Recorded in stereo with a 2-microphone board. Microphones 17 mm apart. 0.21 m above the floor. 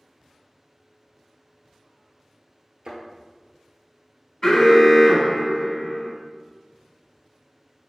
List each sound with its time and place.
2.9 s a thud: 65° right (ahead or behind), 1.3 m
4.4 s an alarm: 35° left (ahead or behind), 1.1 m